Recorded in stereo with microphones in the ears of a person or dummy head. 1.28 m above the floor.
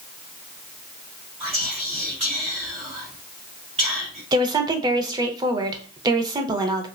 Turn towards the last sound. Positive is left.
turn(degrees=-20)  # may be behind; listen again after turning